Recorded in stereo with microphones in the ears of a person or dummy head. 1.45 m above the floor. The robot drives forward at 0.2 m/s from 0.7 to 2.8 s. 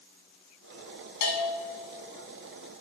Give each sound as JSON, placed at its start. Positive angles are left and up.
{"t": 1.2, "sound": "a bell", "side_deg": 45, "distance_m": 1.1}